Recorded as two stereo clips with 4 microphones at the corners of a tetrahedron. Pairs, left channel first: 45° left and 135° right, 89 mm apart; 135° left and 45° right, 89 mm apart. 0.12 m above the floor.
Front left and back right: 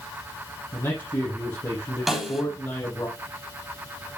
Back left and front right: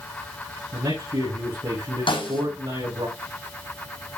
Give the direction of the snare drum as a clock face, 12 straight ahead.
7 o'clock.